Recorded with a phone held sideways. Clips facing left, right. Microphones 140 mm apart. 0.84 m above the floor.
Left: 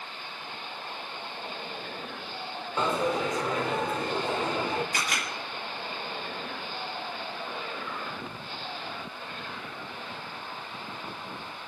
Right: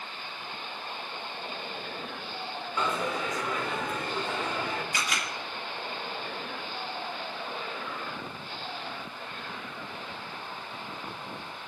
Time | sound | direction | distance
2.8 | a dropped coin | 30° left (ahead or behind) | 1.0 m
4.9 | a camera shutter | 55° left (ahead or behind) | 2.0 m